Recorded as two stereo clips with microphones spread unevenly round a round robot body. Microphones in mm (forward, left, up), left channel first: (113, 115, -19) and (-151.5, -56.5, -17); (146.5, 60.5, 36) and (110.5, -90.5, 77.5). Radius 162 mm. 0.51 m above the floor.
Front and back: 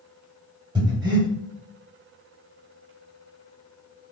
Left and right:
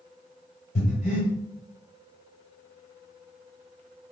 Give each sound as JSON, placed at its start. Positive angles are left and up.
{"t": 0.8, "sound": "breathing", "azimuth_deg": 135, "distance_m": 0.8}